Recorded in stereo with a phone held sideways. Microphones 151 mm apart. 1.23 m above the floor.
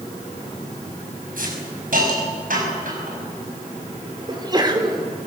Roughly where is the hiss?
Right.